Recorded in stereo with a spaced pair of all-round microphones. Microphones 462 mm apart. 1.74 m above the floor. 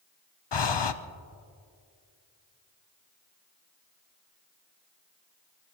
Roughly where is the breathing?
Left.